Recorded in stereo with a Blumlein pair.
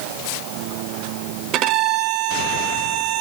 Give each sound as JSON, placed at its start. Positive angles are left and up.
{"t": 1.5, "sound": "a violin", "azimuth_deg": -35, "distance_m": 0.5}